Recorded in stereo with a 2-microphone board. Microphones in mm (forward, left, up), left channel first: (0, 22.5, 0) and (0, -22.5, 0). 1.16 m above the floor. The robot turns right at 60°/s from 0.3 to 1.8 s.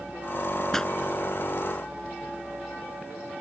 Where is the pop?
5° left (ahead or behind); by 0.9 s 15° left (ahead or behind).